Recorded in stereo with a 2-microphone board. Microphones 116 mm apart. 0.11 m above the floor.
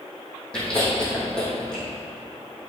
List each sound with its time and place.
0.5 s chewing: 10° left (ahead or behind), 2.5 m